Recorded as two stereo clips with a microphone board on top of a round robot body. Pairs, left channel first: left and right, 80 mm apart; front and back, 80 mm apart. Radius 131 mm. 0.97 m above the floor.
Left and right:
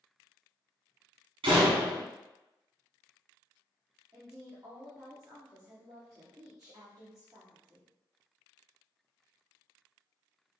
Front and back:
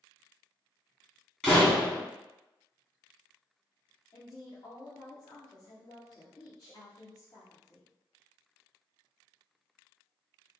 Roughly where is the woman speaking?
Ahead right.